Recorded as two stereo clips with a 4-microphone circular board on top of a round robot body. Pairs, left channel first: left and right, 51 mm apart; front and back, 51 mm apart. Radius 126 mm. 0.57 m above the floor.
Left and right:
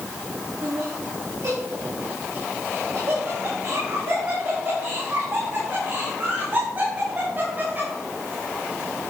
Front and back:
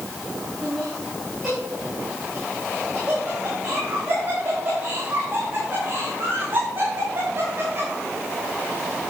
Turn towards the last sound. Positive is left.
turn(degrees=-145)